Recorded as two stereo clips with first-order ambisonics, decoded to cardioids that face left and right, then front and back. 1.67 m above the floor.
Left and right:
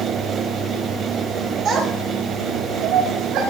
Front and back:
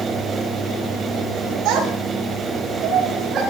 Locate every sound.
1.6 s a child speaking: 140° right, 5 m; by 3.4 s 125° right, 6.5 m